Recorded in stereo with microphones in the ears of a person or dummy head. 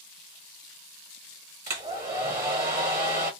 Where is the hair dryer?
20° right (ahead or behind), 1.3 m.